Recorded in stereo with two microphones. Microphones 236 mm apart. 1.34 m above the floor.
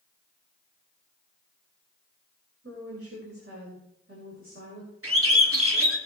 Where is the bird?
65° right (ahead or behind), 2.5 m.